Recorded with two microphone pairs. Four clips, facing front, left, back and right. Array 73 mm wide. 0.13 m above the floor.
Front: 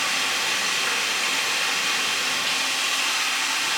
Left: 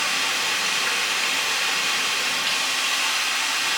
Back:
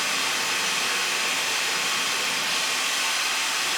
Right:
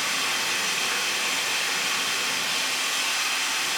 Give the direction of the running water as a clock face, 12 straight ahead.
9 o'clock.